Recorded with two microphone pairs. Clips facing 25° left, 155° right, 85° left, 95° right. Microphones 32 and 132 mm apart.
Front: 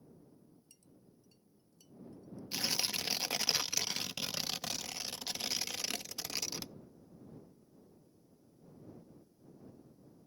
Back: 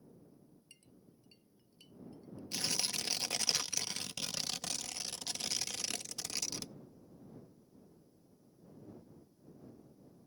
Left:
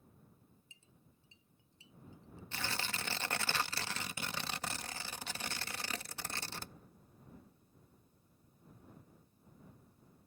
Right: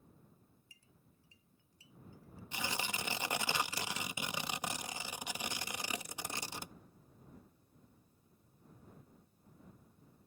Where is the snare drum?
I don't hear a snare drum.